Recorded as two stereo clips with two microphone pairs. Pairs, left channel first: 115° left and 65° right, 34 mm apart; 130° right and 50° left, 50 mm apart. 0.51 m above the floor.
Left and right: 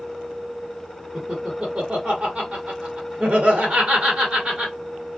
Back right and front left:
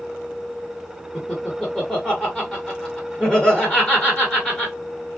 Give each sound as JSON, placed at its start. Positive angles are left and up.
{"t": 1.1, "sound": "laughter", "azimuth_deg": -70, "distance_m": 1.2}